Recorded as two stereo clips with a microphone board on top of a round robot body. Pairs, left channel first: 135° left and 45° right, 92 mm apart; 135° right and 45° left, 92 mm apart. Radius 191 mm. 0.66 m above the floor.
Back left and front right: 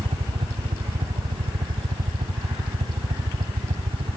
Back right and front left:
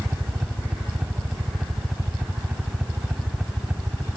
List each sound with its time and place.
0.0 s a helicopter: 35° right